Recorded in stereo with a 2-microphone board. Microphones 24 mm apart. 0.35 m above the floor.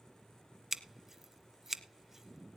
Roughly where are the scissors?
Centre.